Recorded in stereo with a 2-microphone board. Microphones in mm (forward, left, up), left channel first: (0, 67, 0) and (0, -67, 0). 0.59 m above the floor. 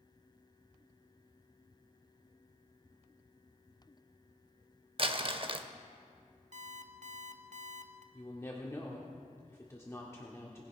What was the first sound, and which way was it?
Crumpling, 40° right (ahead or behind).